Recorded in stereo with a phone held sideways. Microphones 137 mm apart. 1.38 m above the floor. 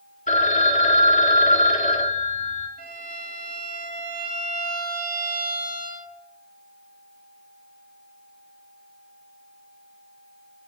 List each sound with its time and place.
0.3 s a phone ringing: 65° left (ahead or behind), 1.5 m
2.8 s a violin: 75° left (ahead or behind), 2.5 m